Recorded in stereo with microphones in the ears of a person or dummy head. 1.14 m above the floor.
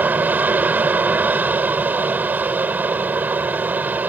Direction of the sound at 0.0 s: 10° right (ahead or behind).